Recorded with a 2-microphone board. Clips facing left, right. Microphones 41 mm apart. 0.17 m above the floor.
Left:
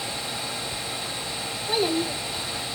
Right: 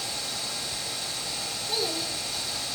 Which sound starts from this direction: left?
A child speaking, at 1.7 s.